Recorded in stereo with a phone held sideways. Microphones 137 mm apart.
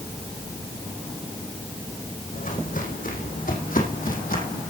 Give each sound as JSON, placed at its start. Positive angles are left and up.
{"t": 2.3, "sound": "footsteps", "side_deg": 70, "distance_m": 5.5}